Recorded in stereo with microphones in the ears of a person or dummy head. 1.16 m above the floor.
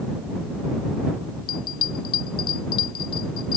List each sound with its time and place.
1.5 s a bell: 25° left (ahead or behind)